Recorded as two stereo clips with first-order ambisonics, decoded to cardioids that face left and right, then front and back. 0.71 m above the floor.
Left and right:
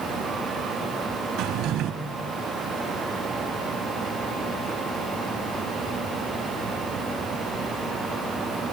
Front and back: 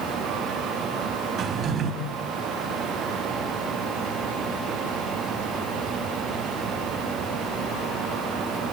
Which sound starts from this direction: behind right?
A drawer, at 1.4 s.